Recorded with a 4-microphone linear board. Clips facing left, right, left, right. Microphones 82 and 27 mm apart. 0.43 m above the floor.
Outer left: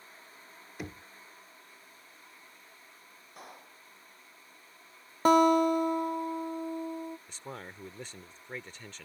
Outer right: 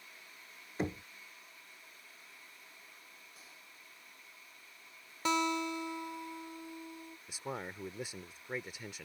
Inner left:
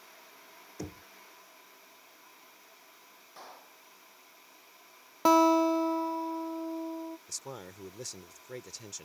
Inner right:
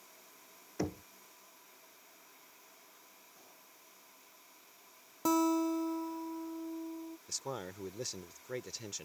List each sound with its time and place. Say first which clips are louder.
0.8 s knocking: outer right 6 dB, inner right 5 dB; 30° right (ahead or behind)
3.4 s a clap: outer left 9 dB, inner left 10 dB; 60° left (ahead or behind)
5.2 s a guitar: outer left 11 dB, inner left 8 dB; 45° left (ahead or behind)
7.3 s a man speaking: outer right 2 dB, inner right 2 dB; 10° right (ahead or behind)